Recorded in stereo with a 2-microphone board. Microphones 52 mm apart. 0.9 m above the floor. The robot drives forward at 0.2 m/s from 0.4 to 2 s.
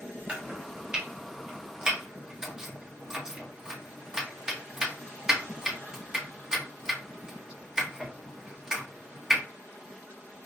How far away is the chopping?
About 0.8 m.